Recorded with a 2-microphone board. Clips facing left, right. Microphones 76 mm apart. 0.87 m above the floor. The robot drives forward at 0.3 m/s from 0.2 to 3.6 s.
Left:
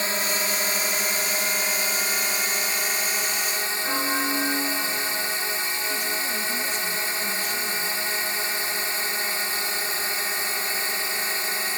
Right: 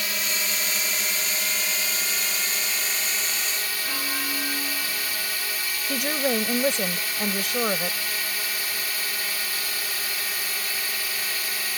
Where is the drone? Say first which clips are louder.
Left 4 dB; 35° left (ahead or behind); by 11.8 s 25° left (ahead or behind).